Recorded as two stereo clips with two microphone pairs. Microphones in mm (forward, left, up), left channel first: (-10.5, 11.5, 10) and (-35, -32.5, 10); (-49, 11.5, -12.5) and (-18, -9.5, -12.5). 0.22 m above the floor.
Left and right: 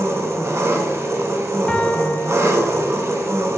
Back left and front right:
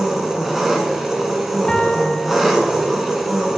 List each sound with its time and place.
0.0 s an engine running: 125° right, 1.3 m
1.7 s a piano: 115° left, 0.9 m